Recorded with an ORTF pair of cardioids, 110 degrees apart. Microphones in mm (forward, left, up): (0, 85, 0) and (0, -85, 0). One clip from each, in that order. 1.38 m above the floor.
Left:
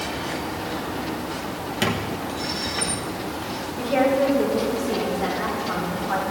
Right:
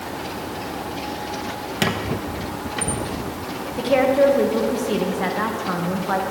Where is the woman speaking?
50° right, 1.7 m.